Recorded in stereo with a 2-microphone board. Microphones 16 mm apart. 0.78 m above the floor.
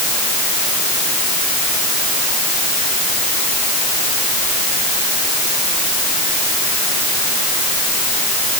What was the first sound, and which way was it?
Only background noise.